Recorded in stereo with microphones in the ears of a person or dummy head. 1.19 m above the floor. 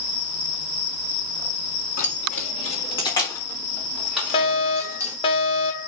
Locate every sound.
2.0 s keys jangling: 50° left (ahead or behind), 1.8 m; by 5.2 s 15° right (ahead or behind), 2.5 m
4.3 s a fire alarm: 25° left (ahead or behind), 1.6 m